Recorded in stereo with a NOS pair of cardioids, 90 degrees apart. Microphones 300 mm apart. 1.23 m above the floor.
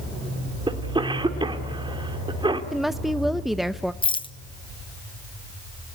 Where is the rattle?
15° left, 0.8 m.